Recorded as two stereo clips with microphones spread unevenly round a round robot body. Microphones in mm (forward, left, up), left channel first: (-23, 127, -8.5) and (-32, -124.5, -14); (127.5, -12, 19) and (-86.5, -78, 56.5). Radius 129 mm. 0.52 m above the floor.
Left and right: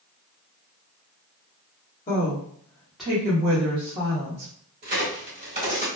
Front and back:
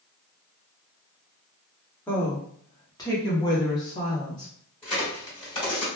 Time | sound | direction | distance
2.1 | a woman speaking | 65° left | 1.0 m
4.8 | a crack | 35° right | 1.8 m